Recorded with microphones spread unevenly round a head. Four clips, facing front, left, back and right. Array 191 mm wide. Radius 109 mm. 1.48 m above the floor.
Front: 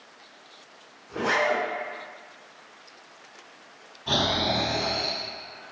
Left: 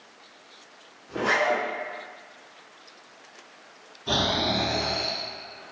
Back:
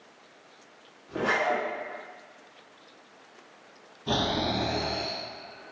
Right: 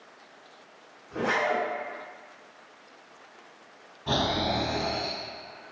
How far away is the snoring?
About 1.9 m.